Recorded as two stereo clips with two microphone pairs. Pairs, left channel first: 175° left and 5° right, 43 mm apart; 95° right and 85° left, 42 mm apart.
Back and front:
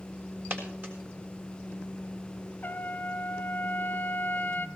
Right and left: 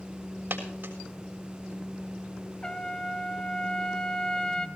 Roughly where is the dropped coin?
Ahead left.